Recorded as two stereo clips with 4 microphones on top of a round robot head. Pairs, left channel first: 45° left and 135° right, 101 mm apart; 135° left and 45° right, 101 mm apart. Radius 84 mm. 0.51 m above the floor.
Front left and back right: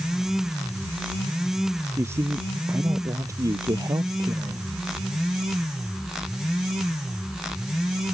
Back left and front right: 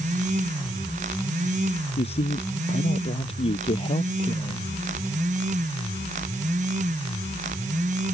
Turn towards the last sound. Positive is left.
turn(degrees=170)